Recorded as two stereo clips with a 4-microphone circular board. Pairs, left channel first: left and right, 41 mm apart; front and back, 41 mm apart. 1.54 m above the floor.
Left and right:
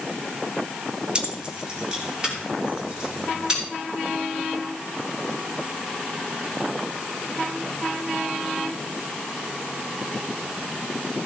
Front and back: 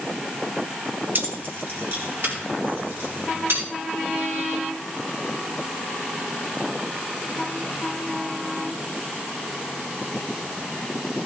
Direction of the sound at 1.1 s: 155° right.